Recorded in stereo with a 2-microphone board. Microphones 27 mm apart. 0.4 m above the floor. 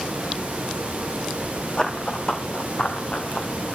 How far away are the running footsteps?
About 1.2 m.